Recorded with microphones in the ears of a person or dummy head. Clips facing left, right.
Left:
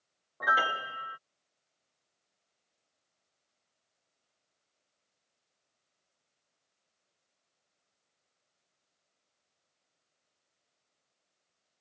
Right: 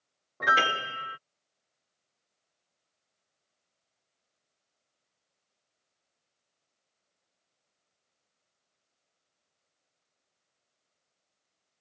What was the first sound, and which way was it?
A piano, 35° right (ahead or behind).